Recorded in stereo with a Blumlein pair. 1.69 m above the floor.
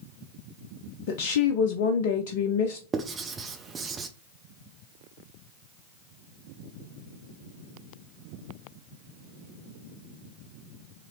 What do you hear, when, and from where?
1.1 s a woman speaking: 55° left, 0.6 m
2.9 s writing: 20° right, 0.8 m